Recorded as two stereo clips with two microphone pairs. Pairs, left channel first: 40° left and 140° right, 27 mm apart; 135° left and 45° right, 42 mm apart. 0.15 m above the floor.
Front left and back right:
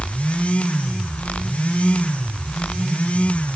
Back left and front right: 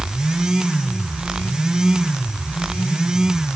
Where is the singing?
I don't hear singing.